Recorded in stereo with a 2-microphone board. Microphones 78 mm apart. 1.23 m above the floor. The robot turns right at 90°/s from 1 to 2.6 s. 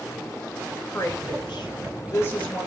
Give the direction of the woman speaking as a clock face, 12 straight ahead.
11 o'clock.